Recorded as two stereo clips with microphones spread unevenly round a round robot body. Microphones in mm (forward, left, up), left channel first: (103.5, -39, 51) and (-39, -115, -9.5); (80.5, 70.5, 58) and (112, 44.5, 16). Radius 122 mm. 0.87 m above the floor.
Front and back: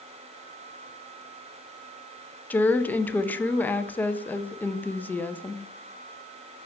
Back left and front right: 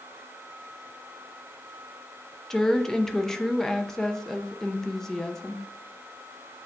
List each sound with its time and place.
2.5 s a woman speaking: 70° right, 0.7 m